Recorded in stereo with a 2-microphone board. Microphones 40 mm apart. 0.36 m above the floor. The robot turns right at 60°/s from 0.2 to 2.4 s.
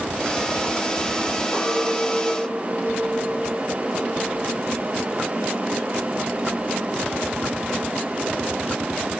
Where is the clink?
125° left, 5.5 m; by 5.3 s straight behind, 5.5 m.